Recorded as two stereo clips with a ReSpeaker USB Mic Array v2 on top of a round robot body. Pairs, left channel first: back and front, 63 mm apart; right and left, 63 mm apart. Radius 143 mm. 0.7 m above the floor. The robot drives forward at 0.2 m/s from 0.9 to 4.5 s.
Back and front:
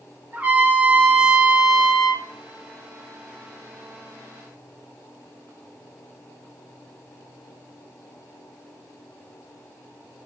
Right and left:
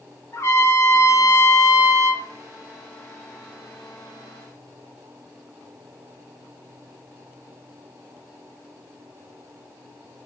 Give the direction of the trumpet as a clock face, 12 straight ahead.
2 o'clock.